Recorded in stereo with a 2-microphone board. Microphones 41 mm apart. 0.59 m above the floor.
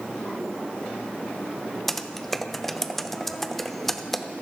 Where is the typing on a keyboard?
5° left (ahead or behind), 0.6 m.